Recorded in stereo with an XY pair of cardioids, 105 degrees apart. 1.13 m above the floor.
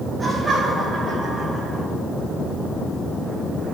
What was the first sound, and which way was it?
Laughter, 25° right.